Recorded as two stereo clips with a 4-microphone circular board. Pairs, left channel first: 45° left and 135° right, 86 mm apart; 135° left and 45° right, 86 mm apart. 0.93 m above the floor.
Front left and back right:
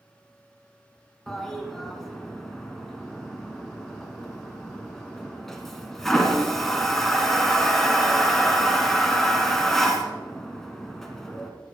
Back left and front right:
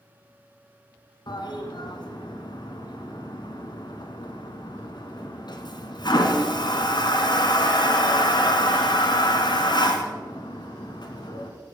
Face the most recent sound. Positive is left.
turn(degrees=130)